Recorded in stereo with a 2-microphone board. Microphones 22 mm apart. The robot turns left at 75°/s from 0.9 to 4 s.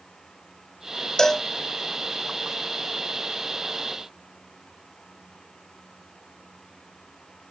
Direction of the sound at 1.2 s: 25° left (ahead or behind).